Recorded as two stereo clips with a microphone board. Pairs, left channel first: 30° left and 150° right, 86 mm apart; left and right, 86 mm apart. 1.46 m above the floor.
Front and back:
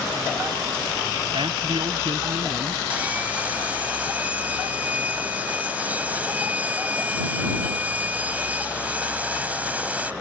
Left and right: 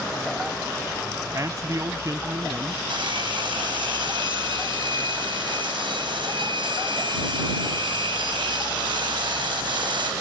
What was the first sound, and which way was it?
A man speaking, 140° right.